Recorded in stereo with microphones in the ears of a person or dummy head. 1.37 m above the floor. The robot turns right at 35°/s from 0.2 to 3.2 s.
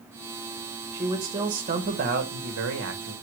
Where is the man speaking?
170° right, 0.9 m; by 3.1 s 90° right, 0.9 m.